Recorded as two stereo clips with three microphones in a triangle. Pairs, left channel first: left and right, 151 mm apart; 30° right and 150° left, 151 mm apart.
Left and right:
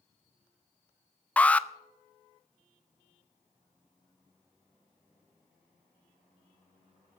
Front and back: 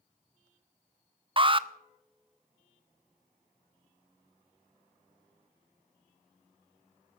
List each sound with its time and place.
1.4 s an alarm: 165° left, 0.5 m